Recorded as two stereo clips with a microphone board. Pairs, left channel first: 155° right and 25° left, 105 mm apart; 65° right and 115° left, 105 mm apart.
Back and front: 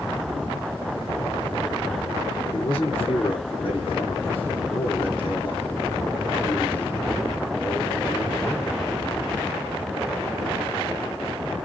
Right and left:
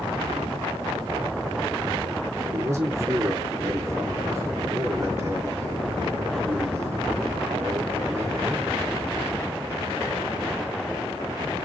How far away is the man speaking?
About 3 m.